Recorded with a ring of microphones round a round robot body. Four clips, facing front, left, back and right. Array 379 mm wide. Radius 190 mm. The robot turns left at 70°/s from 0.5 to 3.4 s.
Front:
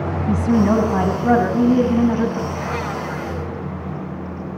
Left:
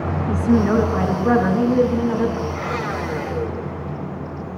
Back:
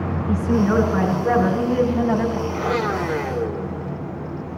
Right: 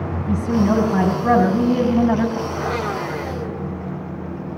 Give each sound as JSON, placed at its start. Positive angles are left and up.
{"t": 0.3, "sound": "a woman speaking", "azimuth_deg": 0, "distance_m": 5.0}
{"t": 2.5, "sound": "a blender", "azimuth_deg": -130, "distance_m": 2.5}